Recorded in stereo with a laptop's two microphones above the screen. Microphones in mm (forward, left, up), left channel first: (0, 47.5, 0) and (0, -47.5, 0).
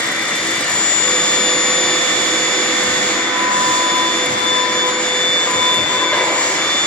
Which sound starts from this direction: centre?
A machine running, at 0.0 s.